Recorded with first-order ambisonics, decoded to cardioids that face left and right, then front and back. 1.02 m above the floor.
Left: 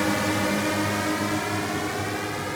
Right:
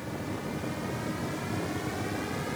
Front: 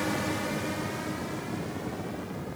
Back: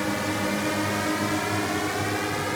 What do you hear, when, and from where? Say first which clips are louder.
0.0 s a drone: left 13 dB, back 4 dB; 105° left; by 2.6 s 155° left